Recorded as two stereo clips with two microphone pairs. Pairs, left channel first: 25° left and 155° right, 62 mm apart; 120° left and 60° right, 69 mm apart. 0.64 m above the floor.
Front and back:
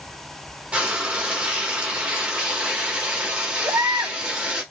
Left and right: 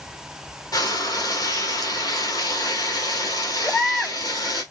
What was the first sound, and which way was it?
Frying, 135° left.